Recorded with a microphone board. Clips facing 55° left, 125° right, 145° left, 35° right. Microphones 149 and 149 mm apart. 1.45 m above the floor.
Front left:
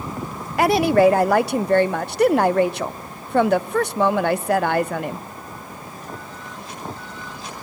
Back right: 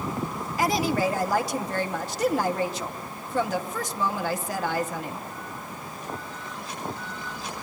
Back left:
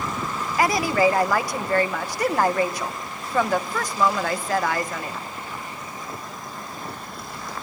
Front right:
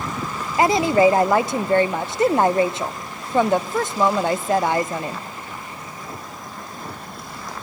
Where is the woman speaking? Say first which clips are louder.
Front left 9 dB, front right 5 dB; 30° left, 0.6 m.